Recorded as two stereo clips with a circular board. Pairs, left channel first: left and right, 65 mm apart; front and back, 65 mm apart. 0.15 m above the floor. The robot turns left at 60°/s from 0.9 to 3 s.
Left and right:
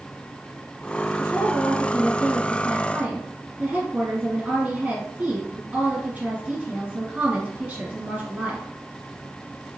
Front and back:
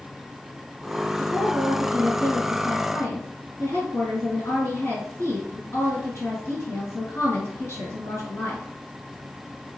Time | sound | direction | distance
1.2 | a woman speaking | 85° left | 1.9 m